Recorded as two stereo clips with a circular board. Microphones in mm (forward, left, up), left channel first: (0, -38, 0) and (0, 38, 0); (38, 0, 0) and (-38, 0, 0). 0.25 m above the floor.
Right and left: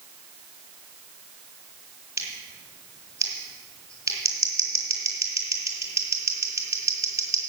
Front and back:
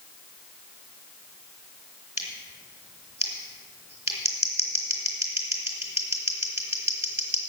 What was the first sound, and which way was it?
Scissors, 135° left.